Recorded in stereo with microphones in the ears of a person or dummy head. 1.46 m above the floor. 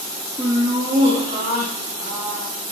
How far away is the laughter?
About 0.6 m.